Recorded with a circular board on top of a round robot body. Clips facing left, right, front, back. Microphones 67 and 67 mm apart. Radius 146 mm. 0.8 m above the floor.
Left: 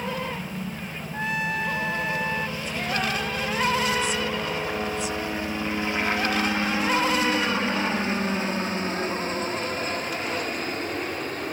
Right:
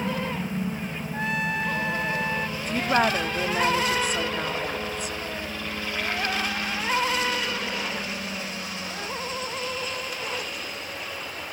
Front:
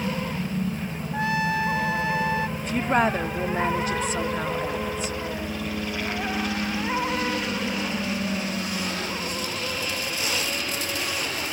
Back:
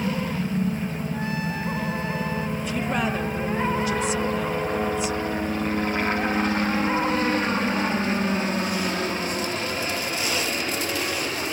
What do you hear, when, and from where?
0.0 s a helicopter: 140° right; by 11.5 s 125° left
1.1 s a trumpet: straight ahead
2.6 s a woman speaking: 50° right